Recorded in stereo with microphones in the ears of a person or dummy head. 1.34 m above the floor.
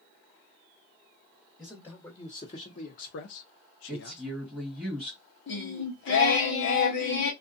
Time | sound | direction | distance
1.6 | a man speaking | 10° left (ahead or behind) | 1.2 m
3.9 | a woman speaking | 5° right (ahead or behind) | 1.5 m
5.5 | singing | 50° left (ahead or behind) | 0.9 m